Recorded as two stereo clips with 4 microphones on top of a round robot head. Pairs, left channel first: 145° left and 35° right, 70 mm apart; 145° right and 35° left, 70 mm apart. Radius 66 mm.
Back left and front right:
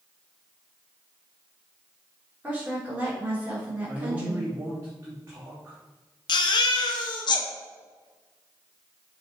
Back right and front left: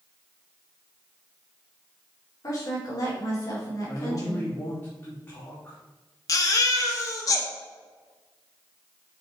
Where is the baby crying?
170° left, 1.0 m.